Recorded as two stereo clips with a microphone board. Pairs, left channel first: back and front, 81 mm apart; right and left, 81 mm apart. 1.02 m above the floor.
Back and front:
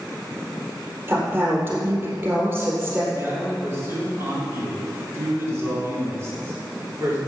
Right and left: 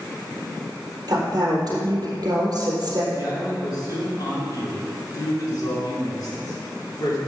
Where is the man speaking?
55° right, 3.5 m.